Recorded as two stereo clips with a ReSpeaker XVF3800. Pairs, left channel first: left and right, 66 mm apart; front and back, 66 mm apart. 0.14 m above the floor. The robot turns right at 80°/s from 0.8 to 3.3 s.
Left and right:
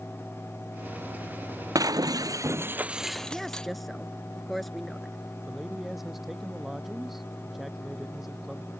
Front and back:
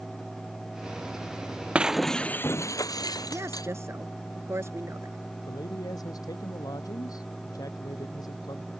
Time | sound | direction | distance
1.8 | breaking glass | 110° right | ?
3.3 | a woman speaking | straight behind | ?
5.5 | a man speaking | straight ahead | ?